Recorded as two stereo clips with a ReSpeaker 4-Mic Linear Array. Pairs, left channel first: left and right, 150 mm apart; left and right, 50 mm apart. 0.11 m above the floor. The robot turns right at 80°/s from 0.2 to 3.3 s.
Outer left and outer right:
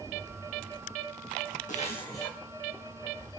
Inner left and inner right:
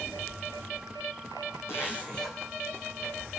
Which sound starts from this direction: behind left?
A zipper, at 1.7 s.